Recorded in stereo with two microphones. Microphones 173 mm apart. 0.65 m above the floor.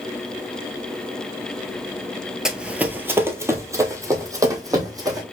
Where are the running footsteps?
5° right (ahead or behind), 0.6 m; by 5.2 s 20° right (ahead or behind), 1.7 m.